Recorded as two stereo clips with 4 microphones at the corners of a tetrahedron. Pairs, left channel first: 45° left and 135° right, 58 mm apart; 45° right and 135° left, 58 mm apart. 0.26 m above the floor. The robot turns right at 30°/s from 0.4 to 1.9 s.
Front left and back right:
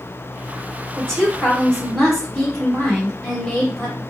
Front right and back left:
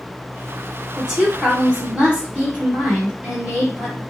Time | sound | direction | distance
1.0 | a woman speaking | 95° left | 1.5 m